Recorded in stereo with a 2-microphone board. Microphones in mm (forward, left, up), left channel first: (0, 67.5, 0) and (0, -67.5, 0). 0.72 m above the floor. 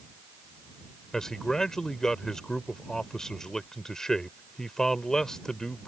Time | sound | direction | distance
1.1 | a man speaking | 5° left (ahead or behind) | ?